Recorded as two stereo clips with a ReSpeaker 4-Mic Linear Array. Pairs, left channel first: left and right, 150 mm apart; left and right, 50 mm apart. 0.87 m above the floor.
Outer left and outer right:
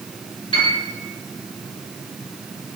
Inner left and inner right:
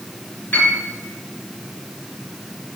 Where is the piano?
35° left (ahead or behind), 4.5 m.